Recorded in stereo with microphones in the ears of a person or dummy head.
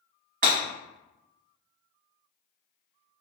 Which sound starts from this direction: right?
Breaking glass, at 0.4 s.